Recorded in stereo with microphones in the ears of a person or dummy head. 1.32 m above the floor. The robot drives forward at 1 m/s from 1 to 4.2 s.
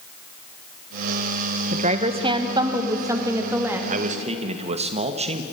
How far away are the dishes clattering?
I don't hear dishes clattering.